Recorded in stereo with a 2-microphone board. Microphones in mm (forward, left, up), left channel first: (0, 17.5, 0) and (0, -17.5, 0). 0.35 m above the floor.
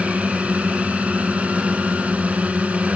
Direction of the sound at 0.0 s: 45° right (ahead or behind).